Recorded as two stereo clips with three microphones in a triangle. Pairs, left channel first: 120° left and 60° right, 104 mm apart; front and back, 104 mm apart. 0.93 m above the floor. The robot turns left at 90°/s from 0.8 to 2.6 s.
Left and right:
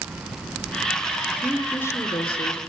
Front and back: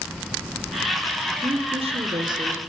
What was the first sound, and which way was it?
A woman speaking, 125° right.